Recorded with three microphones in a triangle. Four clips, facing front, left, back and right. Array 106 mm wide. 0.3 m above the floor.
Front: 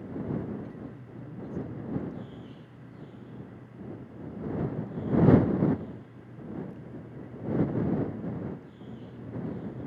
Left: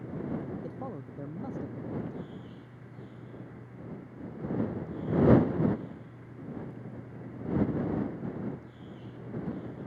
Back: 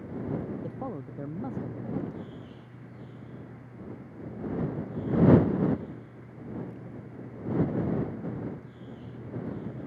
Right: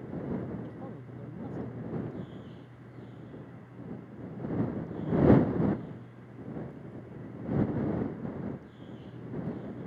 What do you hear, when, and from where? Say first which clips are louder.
0.6 s a man speaking: left 3 dB, back 6 dB; 155° left; by 2.4 s 165° left